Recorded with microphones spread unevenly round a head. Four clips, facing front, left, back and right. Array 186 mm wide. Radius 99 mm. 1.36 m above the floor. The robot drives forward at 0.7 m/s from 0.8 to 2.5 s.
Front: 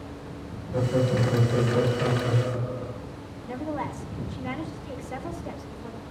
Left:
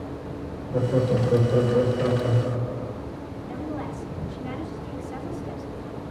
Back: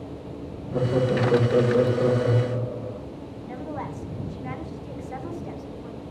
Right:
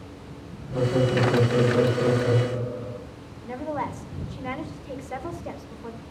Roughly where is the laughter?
Behind.